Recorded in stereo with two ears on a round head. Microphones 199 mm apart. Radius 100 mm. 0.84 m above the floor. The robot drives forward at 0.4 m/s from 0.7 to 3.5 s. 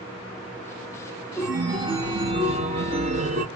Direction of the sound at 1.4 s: 20° right (ahead or behind).